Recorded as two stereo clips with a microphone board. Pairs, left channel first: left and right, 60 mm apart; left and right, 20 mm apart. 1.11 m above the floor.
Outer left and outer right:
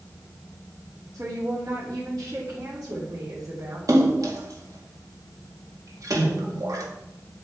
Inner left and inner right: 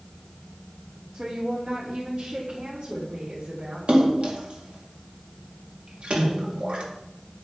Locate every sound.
1.1 s a woman speaking: 80° right, 2.5 m
3.9 s a splash: 70° right (ahead or behind), 2 m